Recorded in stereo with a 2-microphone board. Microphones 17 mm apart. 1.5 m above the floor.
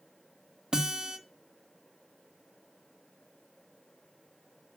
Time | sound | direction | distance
0.7 | a guitar | 45° right (ahead or behind) | 1.9 m